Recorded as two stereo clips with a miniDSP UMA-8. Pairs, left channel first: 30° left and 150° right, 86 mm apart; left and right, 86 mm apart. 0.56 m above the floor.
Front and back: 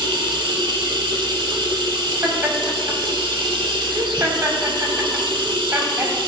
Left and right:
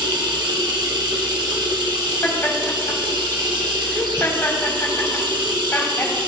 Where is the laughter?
150° left, 3.5 m.